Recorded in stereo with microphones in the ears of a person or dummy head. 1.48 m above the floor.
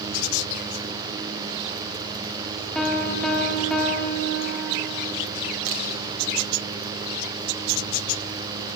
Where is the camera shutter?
35° right (ahead or behind), 2 m.